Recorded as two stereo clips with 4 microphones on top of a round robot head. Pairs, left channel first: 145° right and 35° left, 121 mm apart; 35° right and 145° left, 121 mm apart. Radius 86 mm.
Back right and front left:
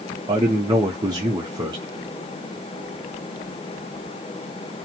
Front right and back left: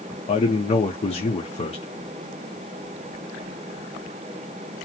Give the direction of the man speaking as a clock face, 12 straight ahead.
12 o'clock.